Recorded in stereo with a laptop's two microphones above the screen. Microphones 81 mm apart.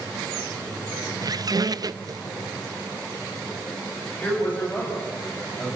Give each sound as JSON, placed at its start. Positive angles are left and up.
{"t": 1.2, "sound": "a squeak", "side_deg": -50, "distance_m": 0.6}
{"t": 4.2, "sound": "a man speaking", "side_deg": 20, "distance_m": 8.0}